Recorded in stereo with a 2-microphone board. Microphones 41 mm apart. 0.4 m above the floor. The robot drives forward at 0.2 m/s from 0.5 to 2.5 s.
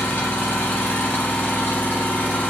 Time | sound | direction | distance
0.0 | an engine running | 65° left (ahead or behind) | 1.0 m